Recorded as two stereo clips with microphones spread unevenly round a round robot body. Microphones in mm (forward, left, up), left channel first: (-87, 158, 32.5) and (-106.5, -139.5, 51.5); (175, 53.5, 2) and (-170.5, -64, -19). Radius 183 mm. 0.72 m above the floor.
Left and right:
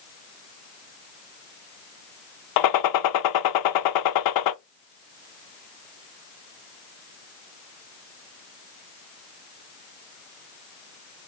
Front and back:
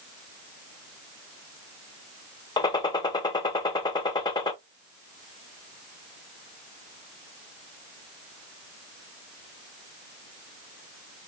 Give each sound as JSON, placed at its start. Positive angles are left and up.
{"t": 2.6, "sound": "a gunshot", "azimuth_deg": 95, "distance_m": 0.6}